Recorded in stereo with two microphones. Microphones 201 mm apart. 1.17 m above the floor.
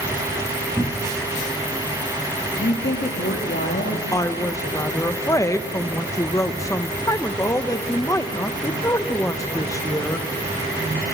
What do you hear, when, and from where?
0.8 s a cupboard door: 10° right (ahead or behind), 1.1 m
2.6 s a woman speaking: 65° left (ahead or behind), 1.7 m
4.1 s a woman speaking: 15° left (ahead or behind), 0.9 m